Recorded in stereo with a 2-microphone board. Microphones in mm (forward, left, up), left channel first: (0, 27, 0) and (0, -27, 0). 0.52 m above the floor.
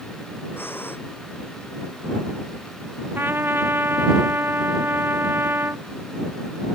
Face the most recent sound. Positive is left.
turn(degrees=-40)  # may be behind; listen again after turning